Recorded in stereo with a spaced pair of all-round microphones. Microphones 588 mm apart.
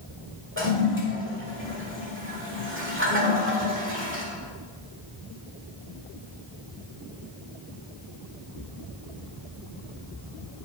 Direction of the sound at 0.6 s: 20° right (ahead or behind).